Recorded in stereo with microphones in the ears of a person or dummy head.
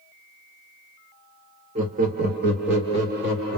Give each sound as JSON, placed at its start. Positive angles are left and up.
{"t": 1.8, "sound": "laughter", "side_deg": -30, "distance_m": 0.6}